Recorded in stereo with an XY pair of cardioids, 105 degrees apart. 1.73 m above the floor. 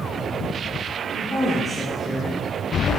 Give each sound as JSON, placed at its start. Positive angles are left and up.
{"t": 1.2, "sound": "a woman speaking", "azimuth_deg": 5, "distance_m": 1.9}